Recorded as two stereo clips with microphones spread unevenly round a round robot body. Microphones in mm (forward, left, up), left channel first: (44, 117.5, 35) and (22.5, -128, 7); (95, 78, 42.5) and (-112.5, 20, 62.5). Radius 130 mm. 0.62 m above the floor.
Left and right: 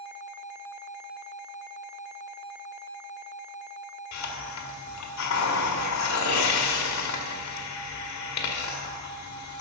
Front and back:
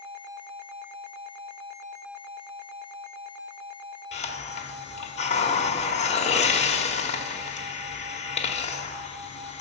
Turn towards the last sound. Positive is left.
turn(degrees=70)